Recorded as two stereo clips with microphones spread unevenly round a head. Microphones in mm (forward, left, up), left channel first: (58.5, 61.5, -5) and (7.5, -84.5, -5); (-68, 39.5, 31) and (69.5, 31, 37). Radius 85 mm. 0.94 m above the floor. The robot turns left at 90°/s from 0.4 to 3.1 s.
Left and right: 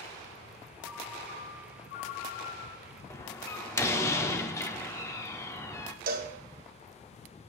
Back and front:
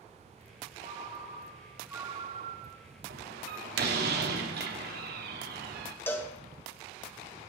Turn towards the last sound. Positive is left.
turn(degrees=-110)